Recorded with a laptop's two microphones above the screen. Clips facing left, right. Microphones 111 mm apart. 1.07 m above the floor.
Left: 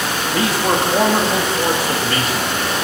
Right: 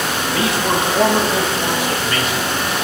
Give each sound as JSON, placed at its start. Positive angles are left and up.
{"t": 0.3, "sound": "a man speaking", "side_deg": 35, "distance_m": 2.0}